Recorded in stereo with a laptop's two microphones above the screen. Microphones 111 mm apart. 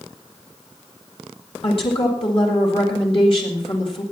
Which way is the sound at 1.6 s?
50° left (ahead or behind).